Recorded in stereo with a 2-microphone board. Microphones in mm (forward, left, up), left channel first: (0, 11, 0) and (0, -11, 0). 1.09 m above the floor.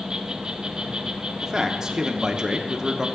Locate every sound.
0.0 s an insect: 40° right (ahead or behind), 1.1 m
1.4 s a man speaking: 25° right (ahead or behind), 1.1 m